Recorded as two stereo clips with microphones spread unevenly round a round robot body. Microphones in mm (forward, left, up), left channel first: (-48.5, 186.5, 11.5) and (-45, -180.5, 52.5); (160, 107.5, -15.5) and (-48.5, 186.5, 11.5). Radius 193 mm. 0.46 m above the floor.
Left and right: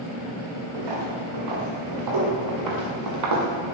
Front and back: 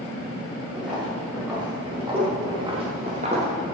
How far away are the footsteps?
About 7.5 m.